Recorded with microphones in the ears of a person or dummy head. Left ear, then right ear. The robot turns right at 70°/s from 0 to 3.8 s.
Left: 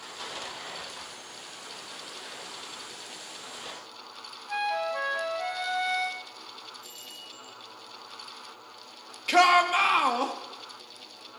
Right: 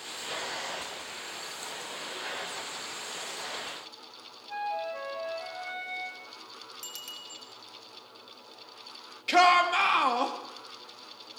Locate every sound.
4.5 s a flute: 45° left (ahead or behind), 0.9 m
6.8 s a bicycle bell: 75° right (ahead or behind), 2.5 m
9.3 s a shout: 5° right (ahead or behind), 1.5 m